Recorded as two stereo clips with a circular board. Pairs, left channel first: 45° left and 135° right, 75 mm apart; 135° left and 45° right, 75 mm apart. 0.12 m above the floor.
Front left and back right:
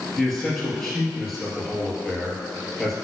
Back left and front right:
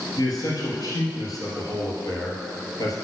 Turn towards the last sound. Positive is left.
turn(degrees=130)